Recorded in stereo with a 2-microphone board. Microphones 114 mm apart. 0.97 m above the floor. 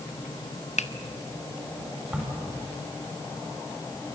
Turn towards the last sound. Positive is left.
turn(degrees=-10)  # may be behind; listen again after turning